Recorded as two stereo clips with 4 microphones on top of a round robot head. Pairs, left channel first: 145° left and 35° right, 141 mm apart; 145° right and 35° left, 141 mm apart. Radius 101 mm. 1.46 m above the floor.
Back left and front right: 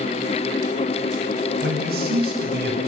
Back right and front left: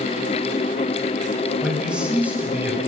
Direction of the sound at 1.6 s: 50° right.